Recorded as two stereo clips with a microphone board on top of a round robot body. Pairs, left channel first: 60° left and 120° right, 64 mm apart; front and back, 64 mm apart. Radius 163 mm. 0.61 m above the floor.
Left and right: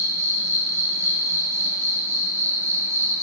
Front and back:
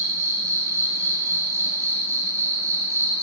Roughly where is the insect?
Behind right.